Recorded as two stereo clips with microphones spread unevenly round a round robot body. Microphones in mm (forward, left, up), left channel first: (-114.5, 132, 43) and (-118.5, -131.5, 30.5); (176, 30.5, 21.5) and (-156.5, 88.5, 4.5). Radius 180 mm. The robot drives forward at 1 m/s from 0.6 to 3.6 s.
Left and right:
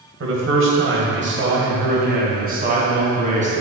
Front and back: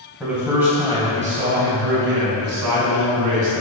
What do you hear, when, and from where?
0.2 s a man speaking: 105° right, 2 m; by 3.6 s 155° right, 4 m